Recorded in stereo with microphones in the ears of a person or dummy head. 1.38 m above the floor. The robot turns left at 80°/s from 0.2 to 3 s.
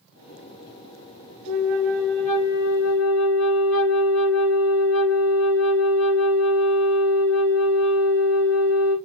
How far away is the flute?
About 1.9 m.